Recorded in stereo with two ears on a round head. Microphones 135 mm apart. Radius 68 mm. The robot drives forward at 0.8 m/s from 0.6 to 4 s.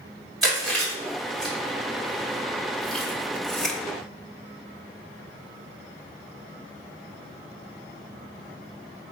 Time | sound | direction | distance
0.4 | chewing | centre (ahead or behind) | 3 m